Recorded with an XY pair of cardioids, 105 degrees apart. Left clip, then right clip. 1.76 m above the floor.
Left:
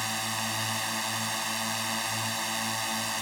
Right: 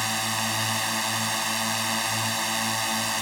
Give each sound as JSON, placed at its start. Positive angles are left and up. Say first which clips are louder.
{"t": 0.0, "sound": "a drone", "louder": "right 4 dB", "azimuth_deg": -25}